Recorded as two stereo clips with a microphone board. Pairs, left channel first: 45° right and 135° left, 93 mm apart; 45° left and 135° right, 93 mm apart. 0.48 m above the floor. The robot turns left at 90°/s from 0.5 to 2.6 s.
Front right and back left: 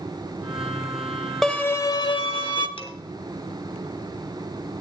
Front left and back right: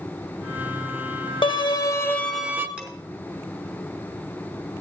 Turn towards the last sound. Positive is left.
turn(degrees=-55)